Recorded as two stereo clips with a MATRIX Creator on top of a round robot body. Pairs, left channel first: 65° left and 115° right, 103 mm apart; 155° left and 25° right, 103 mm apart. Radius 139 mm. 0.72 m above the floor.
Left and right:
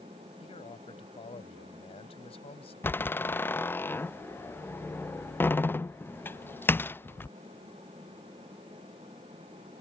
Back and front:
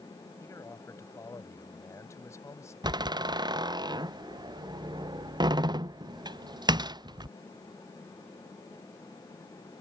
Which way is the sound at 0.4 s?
95° left.